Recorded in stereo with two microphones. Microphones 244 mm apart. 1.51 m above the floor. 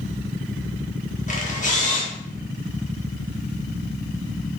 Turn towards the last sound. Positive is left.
turn(degrees=30)  # may be behind; listen again after turning